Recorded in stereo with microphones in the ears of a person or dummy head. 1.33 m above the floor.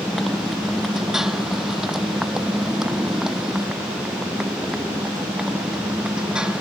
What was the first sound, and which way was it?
A motorcycle, centre (ahead or behind).